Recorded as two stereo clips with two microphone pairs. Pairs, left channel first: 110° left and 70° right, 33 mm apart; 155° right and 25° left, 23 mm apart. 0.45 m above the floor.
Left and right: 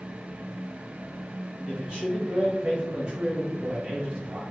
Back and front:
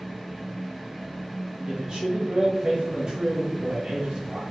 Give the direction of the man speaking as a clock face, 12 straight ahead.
12 o'clock.